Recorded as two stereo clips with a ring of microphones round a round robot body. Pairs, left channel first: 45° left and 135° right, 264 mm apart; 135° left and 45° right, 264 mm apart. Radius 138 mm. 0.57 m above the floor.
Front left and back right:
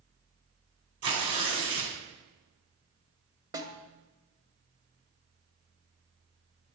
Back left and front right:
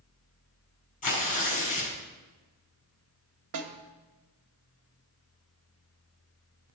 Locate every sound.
1.0 s tearing paper: 165° right, 4 m
3.5 s a snare drum: 60° right, 1.5 m